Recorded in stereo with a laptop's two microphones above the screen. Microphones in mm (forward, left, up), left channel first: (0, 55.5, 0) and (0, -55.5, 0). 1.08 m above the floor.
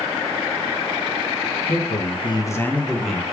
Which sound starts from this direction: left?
A man speaking, at 1.7 s.